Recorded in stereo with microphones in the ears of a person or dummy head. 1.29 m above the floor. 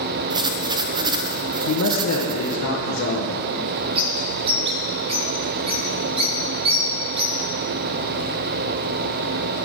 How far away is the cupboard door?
I don't hear a cupboard door.